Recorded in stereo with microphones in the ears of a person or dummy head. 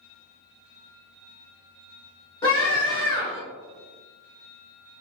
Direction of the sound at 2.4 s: 15° left (ahead or behind).